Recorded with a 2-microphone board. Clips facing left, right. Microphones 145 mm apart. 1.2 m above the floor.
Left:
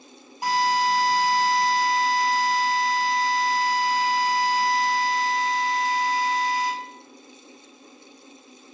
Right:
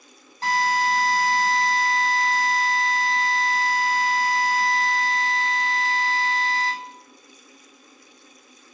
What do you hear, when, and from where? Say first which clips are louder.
0.4 s a drill: left 1 dB; 10° left (ahead or behind), 5 m